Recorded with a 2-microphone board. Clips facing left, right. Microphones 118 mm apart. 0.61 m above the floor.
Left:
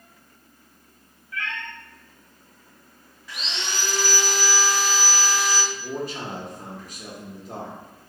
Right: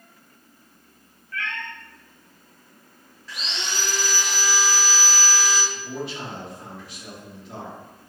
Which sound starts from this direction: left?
A man speaking, at 5.7 s.